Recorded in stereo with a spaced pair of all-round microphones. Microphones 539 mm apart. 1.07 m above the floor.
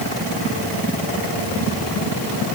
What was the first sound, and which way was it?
Only background noise.